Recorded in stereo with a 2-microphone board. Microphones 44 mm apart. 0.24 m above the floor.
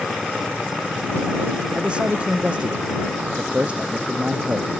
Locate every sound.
1.8 s a man speaking: 25° right (ahead or behind); by 4.7 s 30° right (ahead or behind)